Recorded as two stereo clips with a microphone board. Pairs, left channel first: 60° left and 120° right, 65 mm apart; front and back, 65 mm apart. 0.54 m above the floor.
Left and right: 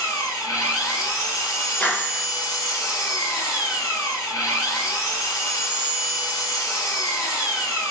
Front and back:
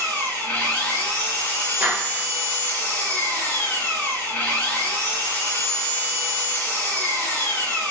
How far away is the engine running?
About 2.5 m.